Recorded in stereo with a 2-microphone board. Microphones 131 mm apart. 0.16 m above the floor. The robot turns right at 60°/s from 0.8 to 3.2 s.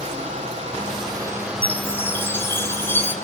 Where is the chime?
10° left (ahead or behind), 1.6 m; by 3.1 s 15° left (ahead or behind), 1.6 m.